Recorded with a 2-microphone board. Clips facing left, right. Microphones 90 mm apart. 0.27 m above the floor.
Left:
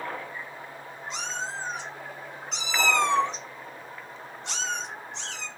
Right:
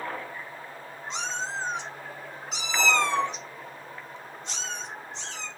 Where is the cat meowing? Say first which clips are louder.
Right 2 dB; 30° right (ahead or behind), 1.6 m; by 5.5 s 70° left (ahead or behind), 1.6 m.